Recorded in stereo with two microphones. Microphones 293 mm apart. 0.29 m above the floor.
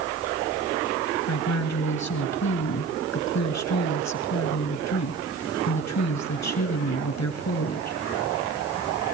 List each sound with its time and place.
1.3 s a woman speaking: 65° left (ahead or behind), 3 m